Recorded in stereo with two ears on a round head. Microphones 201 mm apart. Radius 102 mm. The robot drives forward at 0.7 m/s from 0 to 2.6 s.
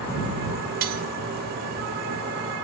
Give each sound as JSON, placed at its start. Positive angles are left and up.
{"t": 0.8, "sound": "cutlery clinking", "side_deg": -45, "distance_m": 2.5}